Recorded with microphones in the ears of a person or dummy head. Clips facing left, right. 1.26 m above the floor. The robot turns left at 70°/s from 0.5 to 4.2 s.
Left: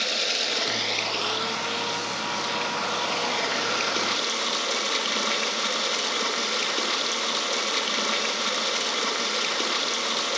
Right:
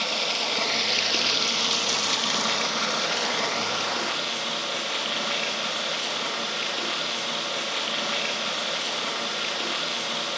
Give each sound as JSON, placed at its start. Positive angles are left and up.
{"t": 0.0, "sound": "running water", "azimuth_deg": 25, "distance_m": 1.2}